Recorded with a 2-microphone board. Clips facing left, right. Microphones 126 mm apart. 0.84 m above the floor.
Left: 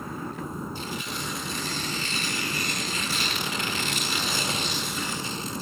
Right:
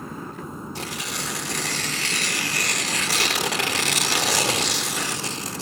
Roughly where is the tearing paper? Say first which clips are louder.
Right 1 dB; right.